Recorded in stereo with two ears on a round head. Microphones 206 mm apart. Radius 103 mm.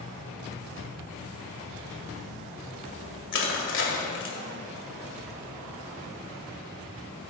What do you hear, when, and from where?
3.3 s crushing: 55° left (ahead or behind), 1.9 m